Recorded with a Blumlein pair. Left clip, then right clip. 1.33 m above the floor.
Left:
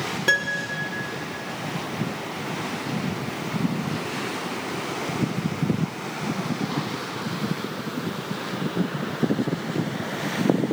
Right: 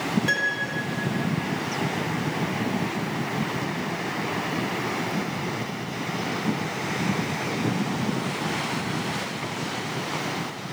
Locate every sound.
0.3 s a piano: 15° left, 0.8 m